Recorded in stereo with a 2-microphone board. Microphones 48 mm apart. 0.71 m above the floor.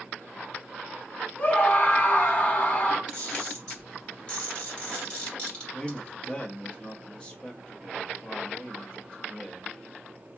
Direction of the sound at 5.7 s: 20° left (ahead or behind).